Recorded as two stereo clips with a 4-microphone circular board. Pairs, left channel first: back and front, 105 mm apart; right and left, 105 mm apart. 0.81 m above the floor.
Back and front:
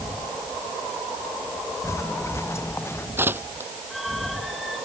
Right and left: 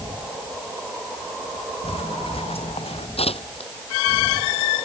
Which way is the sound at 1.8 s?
120° right.